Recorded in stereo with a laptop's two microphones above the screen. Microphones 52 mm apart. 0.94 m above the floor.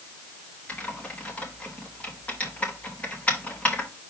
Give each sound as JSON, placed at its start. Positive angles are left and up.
{"t": 0.7, "sound": "typing on a keyboard", "side_deg": 25, "distance_m": 3.5}